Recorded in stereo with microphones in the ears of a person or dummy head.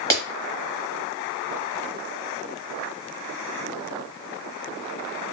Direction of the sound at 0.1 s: 15° left (ahead or behind).